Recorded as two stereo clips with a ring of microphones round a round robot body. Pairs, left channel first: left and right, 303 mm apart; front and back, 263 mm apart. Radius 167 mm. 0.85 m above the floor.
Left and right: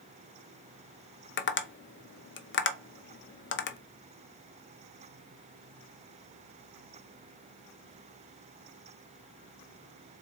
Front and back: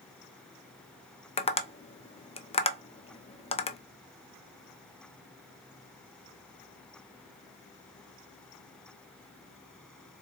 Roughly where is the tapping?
Ahead left.